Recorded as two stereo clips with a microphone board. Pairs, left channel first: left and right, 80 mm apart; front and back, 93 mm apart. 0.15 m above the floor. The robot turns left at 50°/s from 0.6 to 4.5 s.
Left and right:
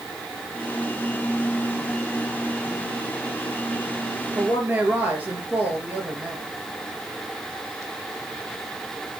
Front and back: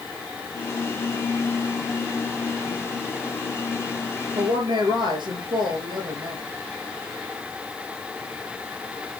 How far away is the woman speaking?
About 3 m.